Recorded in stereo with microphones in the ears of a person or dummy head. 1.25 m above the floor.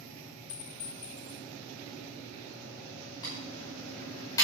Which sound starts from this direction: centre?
Typing on a keyboard, at 3.2 s.